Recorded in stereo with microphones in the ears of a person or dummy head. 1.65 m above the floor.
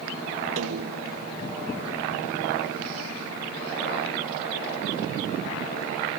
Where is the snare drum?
75° right (ahead or behind).